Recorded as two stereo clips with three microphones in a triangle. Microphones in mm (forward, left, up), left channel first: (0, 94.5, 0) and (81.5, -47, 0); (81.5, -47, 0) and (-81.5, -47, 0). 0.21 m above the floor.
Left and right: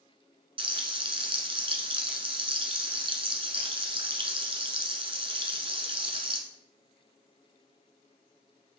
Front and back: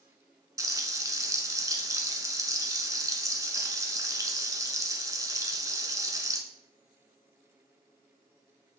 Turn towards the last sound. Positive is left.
turn(degrees=-110)